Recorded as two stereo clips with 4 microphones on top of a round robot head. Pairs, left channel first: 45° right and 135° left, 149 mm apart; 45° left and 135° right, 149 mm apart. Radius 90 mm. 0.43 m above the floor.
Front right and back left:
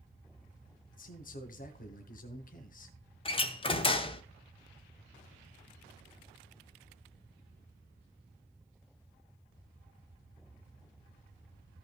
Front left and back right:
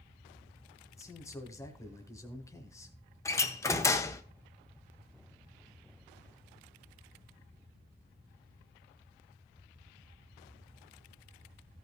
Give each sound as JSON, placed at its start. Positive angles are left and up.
{"t": 0.9, "sound": "a man speaking", "azimuth_deg": -25, "distance_m": 1.7}
{"t": 3.2, "sound": "a door slam", "azimuth_deg": -20, "distance_m": 1.1}